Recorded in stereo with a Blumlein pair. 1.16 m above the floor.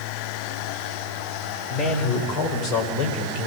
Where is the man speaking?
20° left, 6 m; by 3.5 s 40° left, 5.5 m.